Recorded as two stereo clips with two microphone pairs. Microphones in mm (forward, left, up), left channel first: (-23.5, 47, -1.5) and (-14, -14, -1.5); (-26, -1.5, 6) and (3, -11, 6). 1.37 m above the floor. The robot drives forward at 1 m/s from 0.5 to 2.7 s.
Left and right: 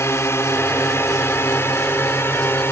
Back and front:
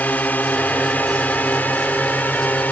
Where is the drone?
145° left; by 2.7 s 150° left.